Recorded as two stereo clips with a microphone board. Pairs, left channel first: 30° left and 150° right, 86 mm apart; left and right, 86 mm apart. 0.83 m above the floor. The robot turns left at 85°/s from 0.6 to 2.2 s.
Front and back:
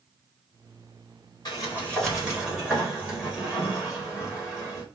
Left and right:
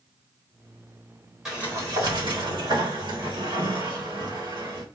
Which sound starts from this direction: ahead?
A sliding door, at 1.4 s.